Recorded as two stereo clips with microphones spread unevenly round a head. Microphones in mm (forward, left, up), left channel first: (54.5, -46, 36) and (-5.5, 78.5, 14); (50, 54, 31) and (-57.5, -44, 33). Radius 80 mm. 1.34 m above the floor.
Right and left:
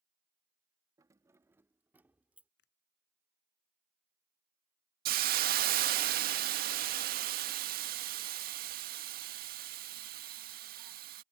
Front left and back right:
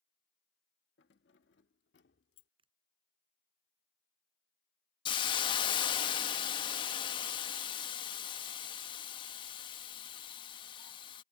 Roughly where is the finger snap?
Right.